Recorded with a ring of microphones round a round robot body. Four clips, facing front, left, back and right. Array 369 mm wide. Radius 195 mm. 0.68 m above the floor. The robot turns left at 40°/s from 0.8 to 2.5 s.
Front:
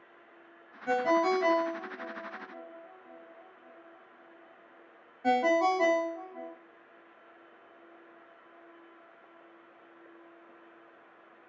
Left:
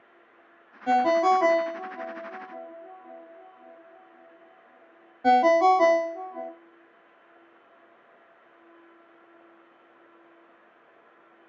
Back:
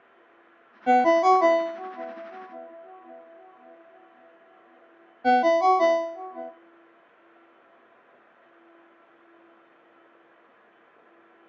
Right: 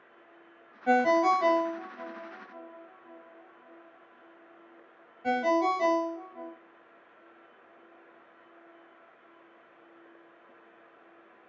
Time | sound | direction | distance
0.9 | a ringtone | 175° left | 0.7 m